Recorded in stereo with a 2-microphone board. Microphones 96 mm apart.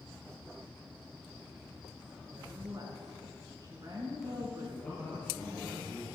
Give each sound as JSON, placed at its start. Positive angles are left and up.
{"t": 2.3, "sound": "a woman speaking", "side_deg": -40, "distance_m": 2.0}
{"t": 4.8, "sound": "a man speaking", "side_deg": 15, "distance_m": 3.5}